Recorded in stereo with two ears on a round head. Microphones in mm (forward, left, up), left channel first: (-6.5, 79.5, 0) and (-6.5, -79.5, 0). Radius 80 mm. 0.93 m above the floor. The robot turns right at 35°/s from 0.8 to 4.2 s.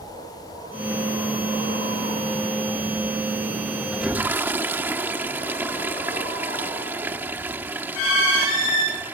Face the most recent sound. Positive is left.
turn(degrees=-10)  # may be behind; listen again after turning